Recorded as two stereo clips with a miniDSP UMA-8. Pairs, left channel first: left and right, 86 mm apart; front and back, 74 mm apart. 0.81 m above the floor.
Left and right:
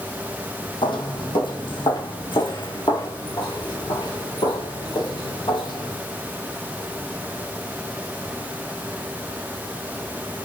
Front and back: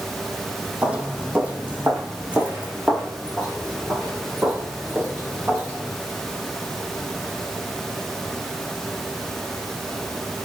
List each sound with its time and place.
0.8 s footsteps: 105° left, 2.5 m; by 6.0 s 110° left, 7 m